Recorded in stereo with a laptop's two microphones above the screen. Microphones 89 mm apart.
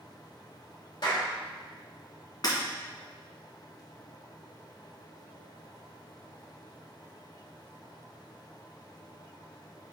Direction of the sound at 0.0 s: 45° left (ahead or behind).